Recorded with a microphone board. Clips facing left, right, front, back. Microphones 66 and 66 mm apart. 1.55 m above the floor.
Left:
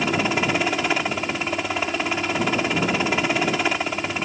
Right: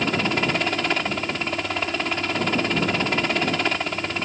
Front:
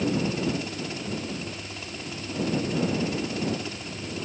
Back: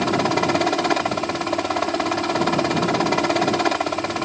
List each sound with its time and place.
0.0 s a helicopter: 175° left